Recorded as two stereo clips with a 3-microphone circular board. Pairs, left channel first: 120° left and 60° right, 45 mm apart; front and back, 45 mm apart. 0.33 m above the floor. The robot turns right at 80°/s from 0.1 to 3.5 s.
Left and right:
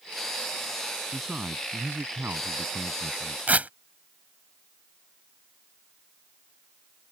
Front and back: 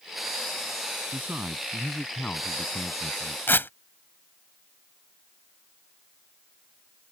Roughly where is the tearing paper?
Ahead.